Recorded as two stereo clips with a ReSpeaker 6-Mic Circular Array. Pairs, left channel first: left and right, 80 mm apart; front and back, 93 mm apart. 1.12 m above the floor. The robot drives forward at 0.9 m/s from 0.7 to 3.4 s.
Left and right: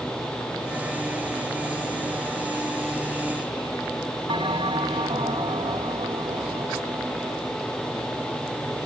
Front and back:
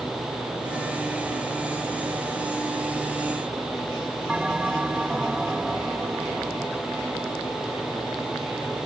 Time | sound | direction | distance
4.3 | a bell | 100° right | ?